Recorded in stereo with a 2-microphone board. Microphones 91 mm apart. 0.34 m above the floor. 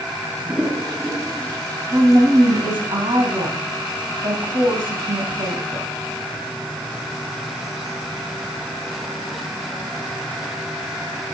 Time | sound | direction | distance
0.4 | a toilet flushing | 35° right (ahead or behind) | 5 m
1.9 | a woman speaking | 60° right (ahead or behind) | 2.5 m